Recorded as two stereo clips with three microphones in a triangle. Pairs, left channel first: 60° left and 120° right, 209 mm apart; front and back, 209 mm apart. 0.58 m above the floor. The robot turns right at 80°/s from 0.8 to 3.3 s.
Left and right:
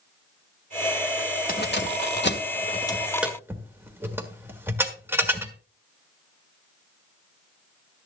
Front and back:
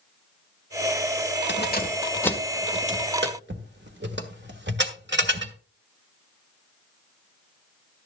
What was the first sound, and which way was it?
Keys jangling, 15° left.